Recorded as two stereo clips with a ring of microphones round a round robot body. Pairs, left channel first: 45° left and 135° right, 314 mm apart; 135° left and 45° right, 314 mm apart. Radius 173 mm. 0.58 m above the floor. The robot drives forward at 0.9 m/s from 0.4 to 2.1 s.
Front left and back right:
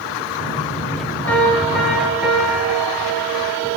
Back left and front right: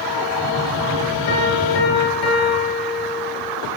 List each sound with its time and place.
1.3 s a piano: 130° left, 4.5 m; by 3.5 s 135° left, 5 m